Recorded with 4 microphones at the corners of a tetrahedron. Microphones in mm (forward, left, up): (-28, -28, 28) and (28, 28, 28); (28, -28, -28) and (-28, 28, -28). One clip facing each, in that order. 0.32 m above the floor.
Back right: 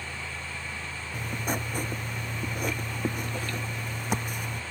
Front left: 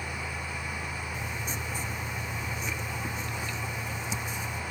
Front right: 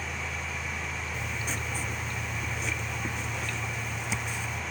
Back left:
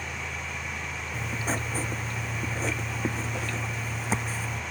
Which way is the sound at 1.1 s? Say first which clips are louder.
Back right 4 dB, back left 7 dB; 170° right.